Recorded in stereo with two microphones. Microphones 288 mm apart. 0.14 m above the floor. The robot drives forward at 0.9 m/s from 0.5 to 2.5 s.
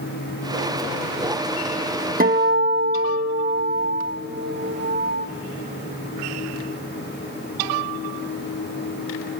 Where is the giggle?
No giggle in this recording.